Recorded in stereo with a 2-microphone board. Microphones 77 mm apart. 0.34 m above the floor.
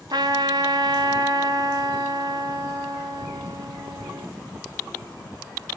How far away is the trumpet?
About 1.0 m.